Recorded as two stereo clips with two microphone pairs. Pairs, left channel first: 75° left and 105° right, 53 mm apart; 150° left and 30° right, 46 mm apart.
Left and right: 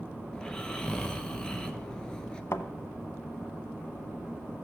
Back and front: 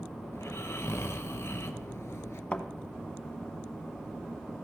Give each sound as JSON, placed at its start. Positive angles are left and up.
{"t": 0.3, "sound": "snoring", "azimuth_deg": 150, "distance_m": 0.7}
{"t": 2.5, "sound": "a thud", "azimuth_deg": 90, "distance_m": 0.9}